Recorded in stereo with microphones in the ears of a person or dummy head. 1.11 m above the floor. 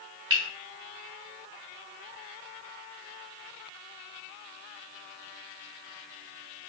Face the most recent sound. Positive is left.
turn(degrees=-25)  # may be behind; listen again after turning